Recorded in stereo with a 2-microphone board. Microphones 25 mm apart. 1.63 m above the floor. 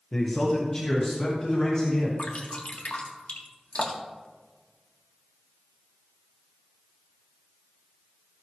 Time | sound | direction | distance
0.1 | a man speaking | 25° left (ahead or behind) | 1.3 m
2.2 | dripping | 55° left (ahead or behind) | 1.6 m